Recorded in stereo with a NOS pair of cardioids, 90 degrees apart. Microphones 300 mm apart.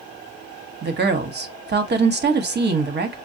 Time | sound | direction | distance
0.8 | a woman speaking | 35° right | 1.1 m